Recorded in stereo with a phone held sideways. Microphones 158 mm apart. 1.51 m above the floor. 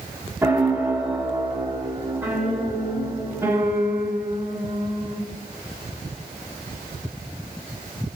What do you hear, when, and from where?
0.4 s a piano: 10° right (ahead or behind), 1.4 m